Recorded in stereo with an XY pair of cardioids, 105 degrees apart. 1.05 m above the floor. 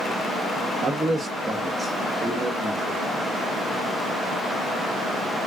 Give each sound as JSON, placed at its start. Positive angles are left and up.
{"t": 0.8, "sound": "a man speaking", "azimuth_deg": -20, "distance_m": 1.1}